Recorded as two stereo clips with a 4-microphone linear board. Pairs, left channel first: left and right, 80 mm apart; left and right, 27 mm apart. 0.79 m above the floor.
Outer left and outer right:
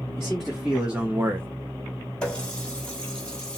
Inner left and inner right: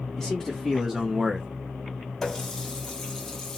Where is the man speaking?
5° left (ahead or behind), 1.6 m; by 1.5 s 30° right (ahead or behind), 0.9 m.